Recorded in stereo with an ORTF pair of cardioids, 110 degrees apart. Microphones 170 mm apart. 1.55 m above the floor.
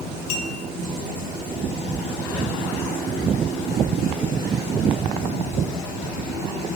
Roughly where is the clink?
Ahead left.